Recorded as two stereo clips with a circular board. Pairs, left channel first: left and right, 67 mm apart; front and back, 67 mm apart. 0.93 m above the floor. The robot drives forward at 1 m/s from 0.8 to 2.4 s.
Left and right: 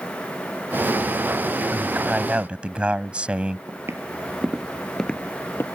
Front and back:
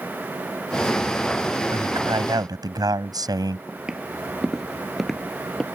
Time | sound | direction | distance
1.7 | a man speaking | 160° right | ?
3.7 | footsteps | 105° right | ?